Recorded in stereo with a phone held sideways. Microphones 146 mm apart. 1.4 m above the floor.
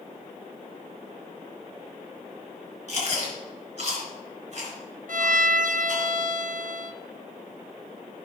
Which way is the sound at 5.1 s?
65° right (ahead or behind).